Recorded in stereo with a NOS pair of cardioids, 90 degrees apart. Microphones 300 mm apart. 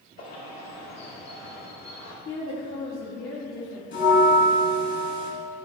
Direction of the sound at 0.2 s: 60° left.